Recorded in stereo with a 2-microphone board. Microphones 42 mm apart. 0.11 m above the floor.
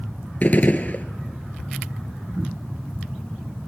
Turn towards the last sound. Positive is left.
turn(degrees=40)  # may be behind; listen again after turning